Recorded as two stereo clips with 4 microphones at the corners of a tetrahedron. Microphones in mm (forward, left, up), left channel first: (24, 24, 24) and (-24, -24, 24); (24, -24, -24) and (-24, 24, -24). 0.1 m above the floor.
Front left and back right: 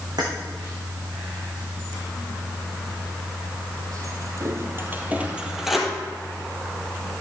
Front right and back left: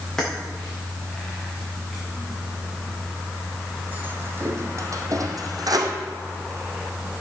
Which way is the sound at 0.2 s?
125° right.